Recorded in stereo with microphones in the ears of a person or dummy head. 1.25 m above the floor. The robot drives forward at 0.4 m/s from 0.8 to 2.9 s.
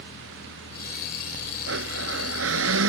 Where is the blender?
70° right (ahead or behind); by 2.9 s 75° right (ahead or behind).